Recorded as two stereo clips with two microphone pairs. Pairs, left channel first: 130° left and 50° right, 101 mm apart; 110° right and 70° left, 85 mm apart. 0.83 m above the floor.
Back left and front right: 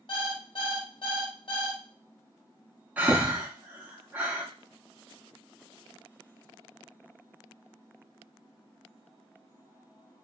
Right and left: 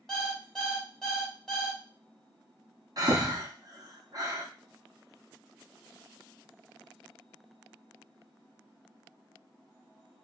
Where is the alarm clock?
160° left, 1.0 m.